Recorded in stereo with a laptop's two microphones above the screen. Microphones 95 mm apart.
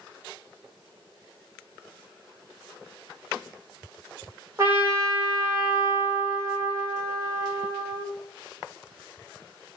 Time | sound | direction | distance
4.6 | a trumpet | 30° right (ahead or behind) | 0.8 m